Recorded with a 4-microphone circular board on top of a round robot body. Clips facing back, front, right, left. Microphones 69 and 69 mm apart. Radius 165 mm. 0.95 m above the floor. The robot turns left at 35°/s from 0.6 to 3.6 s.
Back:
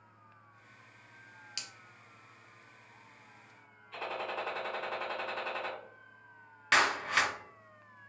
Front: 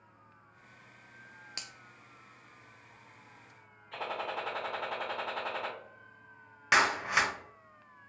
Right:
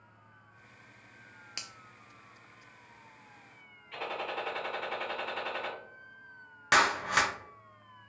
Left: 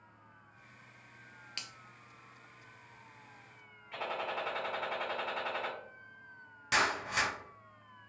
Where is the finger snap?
25° right, 0.6 m; by 1.7 s 30° right, 0.6 m.